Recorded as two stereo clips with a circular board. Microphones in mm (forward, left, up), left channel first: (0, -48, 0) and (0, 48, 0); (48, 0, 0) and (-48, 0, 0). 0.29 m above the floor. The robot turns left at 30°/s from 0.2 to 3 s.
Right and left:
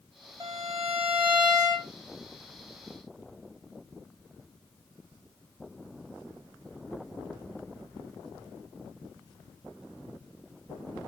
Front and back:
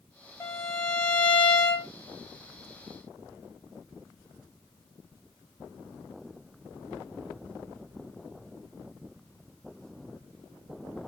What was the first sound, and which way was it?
A violin, 50° left.